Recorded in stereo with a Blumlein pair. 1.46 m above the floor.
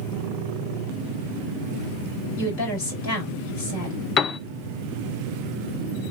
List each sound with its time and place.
2.4 s a woman speaking: 50° left, 4.5 m
4.2 s a piano: 25° left, 0.5 m